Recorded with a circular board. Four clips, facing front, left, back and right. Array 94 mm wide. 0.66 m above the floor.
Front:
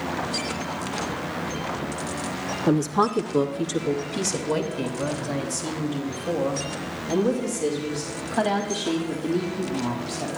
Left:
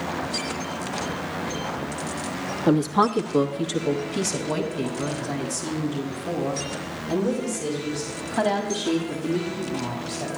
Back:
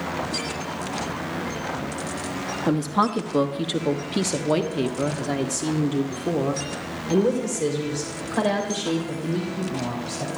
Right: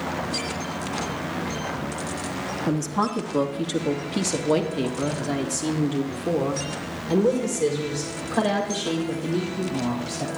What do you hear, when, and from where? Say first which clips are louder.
2.7 s a woman speaking: left 6 dB, front 1 dB; 115° left, 1.0 m; by 10.3 s 135° right, 4 m